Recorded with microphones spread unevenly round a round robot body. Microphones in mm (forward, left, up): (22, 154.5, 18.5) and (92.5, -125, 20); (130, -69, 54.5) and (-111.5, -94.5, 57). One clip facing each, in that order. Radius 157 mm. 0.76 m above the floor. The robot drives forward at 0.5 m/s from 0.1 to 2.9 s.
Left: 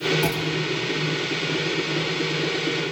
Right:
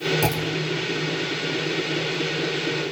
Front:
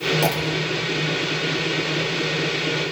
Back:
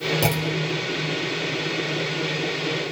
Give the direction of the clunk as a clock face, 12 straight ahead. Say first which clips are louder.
Even, front 1 dB; 4 o'clock.